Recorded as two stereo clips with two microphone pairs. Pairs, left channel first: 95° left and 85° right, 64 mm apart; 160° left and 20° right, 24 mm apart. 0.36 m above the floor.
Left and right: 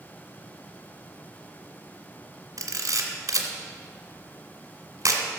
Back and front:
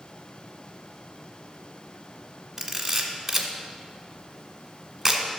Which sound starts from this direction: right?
A camera shutter, at 2.6 s.